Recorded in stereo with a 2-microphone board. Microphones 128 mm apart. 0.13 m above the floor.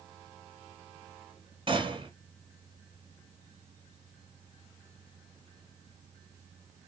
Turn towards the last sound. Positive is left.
turn(degrees=-45)  # may be behind; listen again after turning